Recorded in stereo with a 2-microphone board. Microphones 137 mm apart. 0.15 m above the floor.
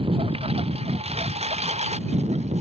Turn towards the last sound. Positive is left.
turn(degrees=-50)  # may be behind; listen again after turning